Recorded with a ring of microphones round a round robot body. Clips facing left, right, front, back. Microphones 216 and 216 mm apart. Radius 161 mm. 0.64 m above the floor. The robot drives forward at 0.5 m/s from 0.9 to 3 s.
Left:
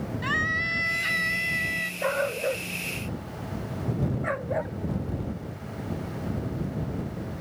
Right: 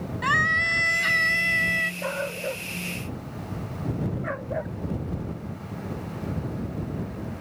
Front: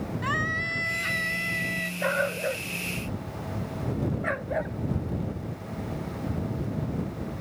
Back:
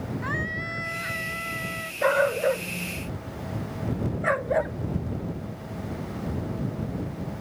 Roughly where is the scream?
Ahead right.